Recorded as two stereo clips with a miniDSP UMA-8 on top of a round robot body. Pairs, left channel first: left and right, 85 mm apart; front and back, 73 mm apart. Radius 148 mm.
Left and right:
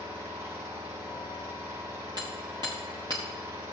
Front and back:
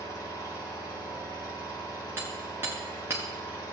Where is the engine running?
30° right, 3.5 m.